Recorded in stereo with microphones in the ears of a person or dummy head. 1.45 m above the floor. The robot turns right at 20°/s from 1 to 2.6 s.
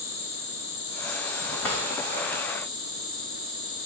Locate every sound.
0.0 s an insect: 150° left, 1.7 m; by 3.9 s straight behind, 1.7 m
1.6 s a drawer: 5° left (ahead or behind), 2.0 m